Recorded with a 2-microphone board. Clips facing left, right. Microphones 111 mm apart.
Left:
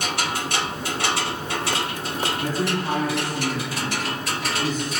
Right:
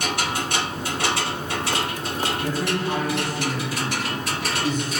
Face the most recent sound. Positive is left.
turn(degrees=40)  # may be behind; listen again after turning